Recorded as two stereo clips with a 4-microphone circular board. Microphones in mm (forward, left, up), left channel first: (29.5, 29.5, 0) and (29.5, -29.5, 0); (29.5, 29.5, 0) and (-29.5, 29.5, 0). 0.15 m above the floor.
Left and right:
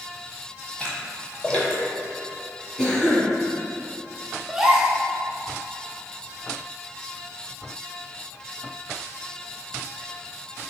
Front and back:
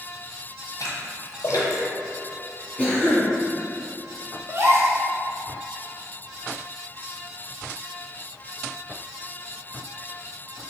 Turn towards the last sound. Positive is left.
turn(degrees=-165)